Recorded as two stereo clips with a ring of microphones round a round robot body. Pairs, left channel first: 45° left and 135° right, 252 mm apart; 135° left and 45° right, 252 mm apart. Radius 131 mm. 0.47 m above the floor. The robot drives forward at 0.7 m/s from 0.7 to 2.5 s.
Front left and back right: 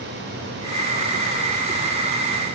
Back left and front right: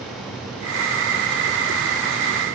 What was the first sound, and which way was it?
Only background noise.